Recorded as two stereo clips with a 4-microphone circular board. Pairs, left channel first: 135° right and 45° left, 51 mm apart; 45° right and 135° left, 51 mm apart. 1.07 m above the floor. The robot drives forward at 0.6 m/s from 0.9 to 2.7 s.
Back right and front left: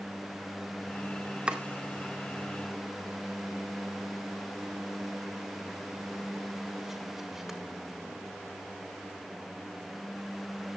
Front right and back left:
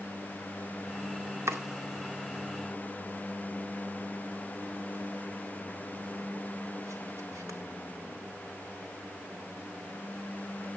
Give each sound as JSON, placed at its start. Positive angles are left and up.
{"t": 1.5, "sound": "chopping", "azimuth_deg": 115, "distance_m": 2.0}